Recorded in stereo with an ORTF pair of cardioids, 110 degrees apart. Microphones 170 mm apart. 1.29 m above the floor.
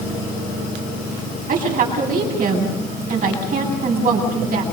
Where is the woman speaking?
55° right, 9 m.